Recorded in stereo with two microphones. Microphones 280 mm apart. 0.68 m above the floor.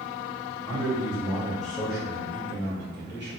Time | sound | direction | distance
0.7 | a man speaking | 20° left (ahead or behind) | 1.5 m